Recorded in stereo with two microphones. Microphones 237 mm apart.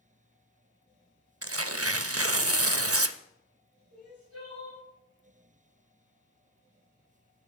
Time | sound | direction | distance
1.4 | tearing paper | 75° right (ahead or behind) | 0.6 m
3.9 | crying | 80° right | 6.5 m